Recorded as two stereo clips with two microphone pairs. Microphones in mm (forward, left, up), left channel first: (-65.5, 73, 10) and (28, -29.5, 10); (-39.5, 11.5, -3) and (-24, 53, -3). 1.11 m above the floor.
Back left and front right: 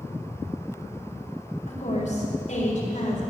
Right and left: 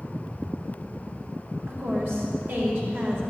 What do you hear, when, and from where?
1.7 s a woman speaking: 105° left, 4 m